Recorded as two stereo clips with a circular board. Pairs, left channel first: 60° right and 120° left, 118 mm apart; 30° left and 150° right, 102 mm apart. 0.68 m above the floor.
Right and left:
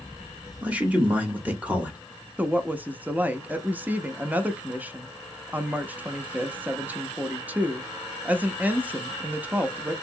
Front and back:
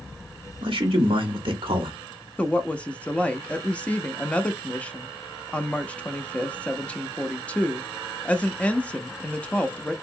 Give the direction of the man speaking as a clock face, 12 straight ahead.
5 o'clock.